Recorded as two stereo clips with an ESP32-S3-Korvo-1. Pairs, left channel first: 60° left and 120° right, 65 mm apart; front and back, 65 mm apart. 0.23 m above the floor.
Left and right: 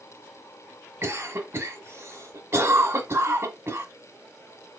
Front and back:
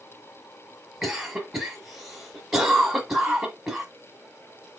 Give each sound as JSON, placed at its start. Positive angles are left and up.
{"t": 1.0, "sound": "a cough", "azimuth_deg": -95, "distance_m": 1.3}